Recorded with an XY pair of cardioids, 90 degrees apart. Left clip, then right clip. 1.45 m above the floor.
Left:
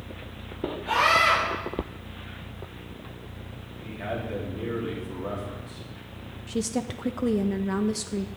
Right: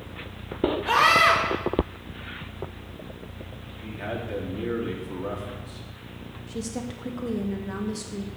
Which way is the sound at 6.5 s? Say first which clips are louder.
Left 5 dB; 45° left.